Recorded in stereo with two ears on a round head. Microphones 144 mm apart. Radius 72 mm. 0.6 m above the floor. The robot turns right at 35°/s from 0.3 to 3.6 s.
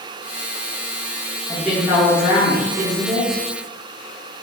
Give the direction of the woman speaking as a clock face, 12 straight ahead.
6 o'clock.